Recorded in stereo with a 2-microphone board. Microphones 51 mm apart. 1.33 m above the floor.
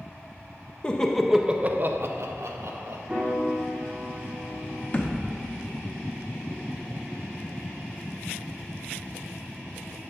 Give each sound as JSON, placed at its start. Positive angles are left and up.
{"t": 0.8, "sound": "laughter", "side_deg": 20, "distance_m": 0.7}
{"t": 3.1, "sound": "a piano", "side_deg": -25, "distance_m": 3.0}
{"t": 4.9, "sound": "a thud", "side_deg": 40, "distance_m": 0.8}